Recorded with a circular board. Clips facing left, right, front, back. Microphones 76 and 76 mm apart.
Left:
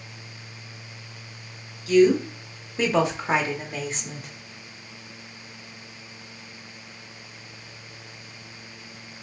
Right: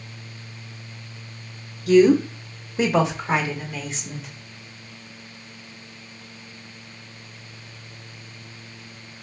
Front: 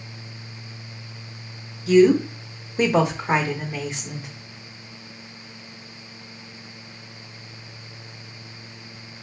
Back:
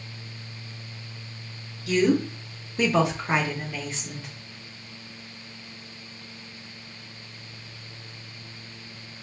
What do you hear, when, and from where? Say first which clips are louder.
1.9 s a woman speaking: right 3 dB, front 7 dB; 75° right, 1.1 m; by 4.3 s 70° left, 1.2 m